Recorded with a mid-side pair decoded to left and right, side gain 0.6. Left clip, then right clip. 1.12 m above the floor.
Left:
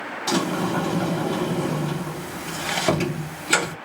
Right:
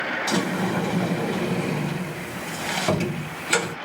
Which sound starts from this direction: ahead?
A sliding door, at 0.3 s.